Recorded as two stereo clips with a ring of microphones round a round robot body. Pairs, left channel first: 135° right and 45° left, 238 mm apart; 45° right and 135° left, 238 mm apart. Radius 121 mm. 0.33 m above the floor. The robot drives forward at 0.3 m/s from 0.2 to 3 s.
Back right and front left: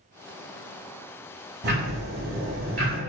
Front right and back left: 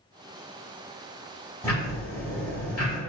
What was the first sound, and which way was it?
Ticking, 25° left.